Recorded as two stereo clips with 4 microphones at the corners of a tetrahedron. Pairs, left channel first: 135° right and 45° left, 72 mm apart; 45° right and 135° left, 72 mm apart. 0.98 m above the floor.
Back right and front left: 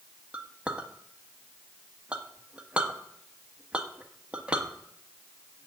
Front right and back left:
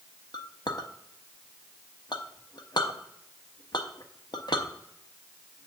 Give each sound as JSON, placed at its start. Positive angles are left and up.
{"t": 0.3, "sound": "a clink", "azimuth_deg": -30, "distance_m": 0.9}